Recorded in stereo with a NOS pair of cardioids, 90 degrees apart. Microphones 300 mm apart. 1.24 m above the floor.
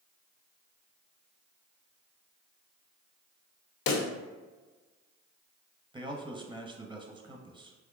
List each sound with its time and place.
3.9 s a pop: 70° left, 0.6 m
5.9 s a man speaking: 15° right, 0.8 m